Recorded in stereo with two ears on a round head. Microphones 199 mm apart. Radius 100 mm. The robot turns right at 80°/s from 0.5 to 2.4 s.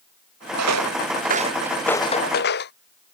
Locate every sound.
0.6 s footsteps: 85° right; by 2.7 s 50° left (ahead or behind)